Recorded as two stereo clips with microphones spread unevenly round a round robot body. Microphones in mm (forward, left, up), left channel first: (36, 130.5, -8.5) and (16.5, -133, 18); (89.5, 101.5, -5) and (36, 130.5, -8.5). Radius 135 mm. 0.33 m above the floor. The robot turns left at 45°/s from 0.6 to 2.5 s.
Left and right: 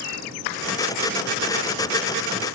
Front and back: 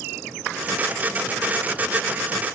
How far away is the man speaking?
I don't hear a man speaking.